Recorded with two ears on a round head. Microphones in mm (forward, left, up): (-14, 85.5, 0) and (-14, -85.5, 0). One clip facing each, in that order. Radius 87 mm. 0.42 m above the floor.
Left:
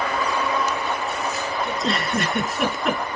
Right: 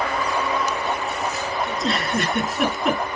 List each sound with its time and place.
1.7 s a giggle: centre (ahead or behind), 4.5 m